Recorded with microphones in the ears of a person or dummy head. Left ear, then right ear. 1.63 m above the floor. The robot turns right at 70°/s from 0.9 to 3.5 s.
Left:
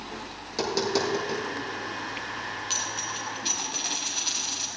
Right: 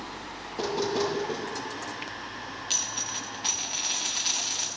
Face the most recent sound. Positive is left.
turn(degrees=-135)